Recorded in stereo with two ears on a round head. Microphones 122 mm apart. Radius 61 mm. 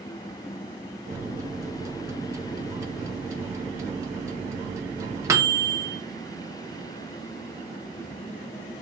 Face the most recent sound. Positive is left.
turn(degrees=-20)  # may be behind; listen again after turning